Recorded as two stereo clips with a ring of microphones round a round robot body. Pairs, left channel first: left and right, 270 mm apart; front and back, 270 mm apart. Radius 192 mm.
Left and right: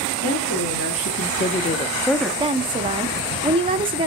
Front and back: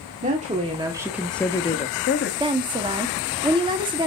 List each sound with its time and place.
0.2 s a woman speaking: 120° left, 1.7 m; by 2.3 s straight ahead, 1.1 m
2.4 s a woman speaking: 135° right, 0.8 m